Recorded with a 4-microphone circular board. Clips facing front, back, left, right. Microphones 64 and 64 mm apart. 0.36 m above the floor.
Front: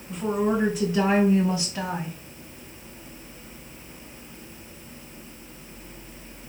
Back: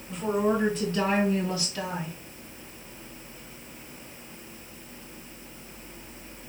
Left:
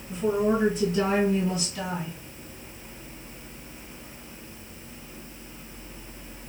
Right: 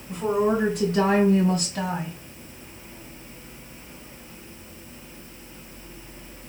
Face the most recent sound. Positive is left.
turn(degrees=-55)